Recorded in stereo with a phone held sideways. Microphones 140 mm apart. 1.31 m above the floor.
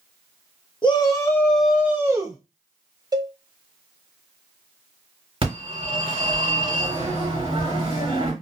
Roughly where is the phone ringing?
Right.